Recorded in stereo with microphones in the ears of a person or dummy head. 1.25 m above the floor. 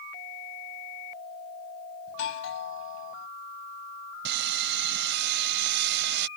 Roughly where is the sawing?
Right.